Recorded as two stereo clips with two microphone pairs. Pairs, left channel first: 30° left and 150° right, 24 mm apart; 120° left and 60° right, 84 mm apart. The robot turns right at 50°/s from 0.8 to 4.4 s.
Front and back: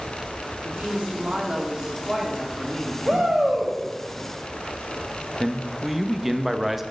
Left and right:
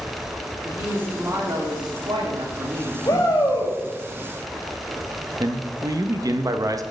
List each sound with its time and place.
0.6 s a woman speaking: 135° right, 1.8 m; by 3.0 s 30° right, 1.8 m
3.0 s a shout: 155° left, 3 m; by 3.7 s 170° right, 3 m
5.4 s a man speaking: 75° right, 0.6 m